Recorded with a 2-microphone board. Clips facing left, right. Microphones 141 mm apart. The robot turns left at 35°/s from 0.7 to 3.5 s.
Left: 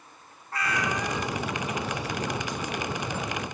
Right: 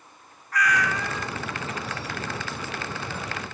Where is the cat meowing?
30° left (ahead or behind), 1.6 m; by 1.3 s 5° left (ahead or behind), 1.6 m.